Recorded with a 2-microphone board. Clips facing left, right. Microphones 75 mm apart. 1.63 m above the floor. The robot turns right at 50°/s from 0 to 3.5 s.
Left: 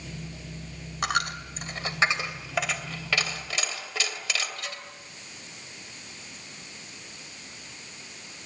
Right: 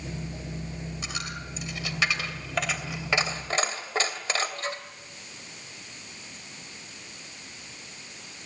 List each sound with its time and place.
1.0 s a dropped coin: 65° left (ahead or behind), 2.5 m; by 4.8 s 35° right (ahead or behind), 2.5 m